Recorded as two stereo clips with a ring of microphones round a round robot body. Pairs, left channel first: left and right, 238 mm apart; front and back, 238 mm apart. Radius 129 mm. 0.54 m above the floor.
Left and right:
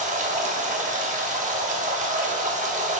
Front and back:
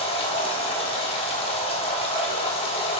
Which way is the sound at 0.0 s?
55° right.